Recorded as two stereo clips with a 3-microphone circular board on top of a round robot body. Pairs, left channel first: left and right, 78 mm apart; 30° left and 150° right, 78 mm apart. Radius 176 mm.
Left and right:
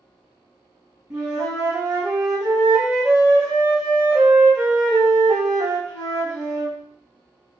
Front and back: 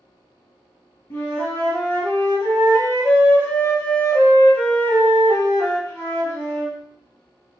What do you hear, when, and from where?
1.1 s a flute: 25° right, 1.2 m